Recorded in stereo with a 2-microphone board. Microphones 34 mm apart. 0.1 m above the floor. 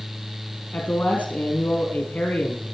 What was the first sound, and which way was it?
A man speaking, 60° left (ahead or behind).